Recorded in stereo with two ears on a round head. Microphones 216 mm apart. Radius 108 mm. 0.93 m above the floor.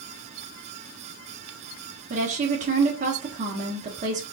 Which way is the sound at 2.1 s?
30° right (ahead or behind).